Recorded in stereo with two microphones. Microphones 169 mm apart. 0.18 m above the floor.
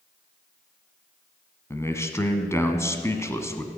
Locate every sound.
1.7 s a man speaking: 15° left (ahead or behind), 1.2 m